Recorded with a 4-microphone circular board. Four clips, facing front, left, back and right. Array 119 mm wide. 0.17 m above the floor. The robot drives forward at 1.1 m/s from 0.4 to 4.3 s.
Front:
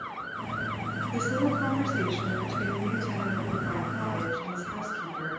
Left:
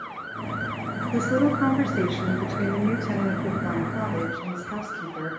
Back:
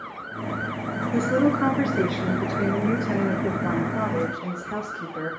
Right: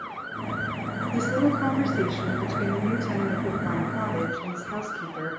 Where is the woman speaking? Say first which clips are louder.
Left 2 dB, back 7 dB; 135° left, 1.9 m; by 5.3 s 170° left, 4.5 m.